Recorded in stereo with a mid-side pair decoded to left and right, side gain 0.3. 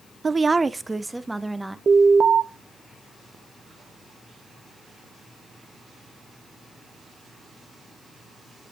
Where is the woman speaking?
50° right, 0.7 m; by 1.8 s 10° right, 1.8 m.